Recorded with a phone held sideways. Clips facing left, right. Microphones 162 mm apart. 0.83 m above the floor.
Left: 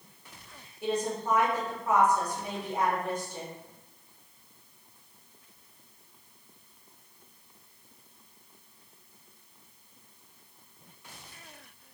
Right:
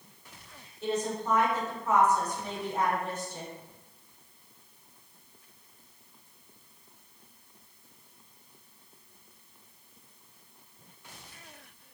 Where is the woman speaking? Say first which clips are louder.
Left 1 dB; 10° left (ahead or behind), 1.5 m.